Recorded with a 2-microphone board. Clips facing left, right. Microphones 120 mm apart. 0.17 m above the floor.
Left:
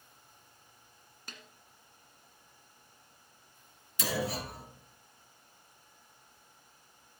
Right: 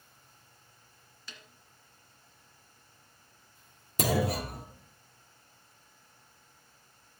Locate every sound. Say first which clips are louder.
1.3 s a snare drum: left 1 dB; 50° left (ahead or behind), 1.6 m
4.0 s a clunk: right 5 dB; 45° right (ahead or behind), 1.5 m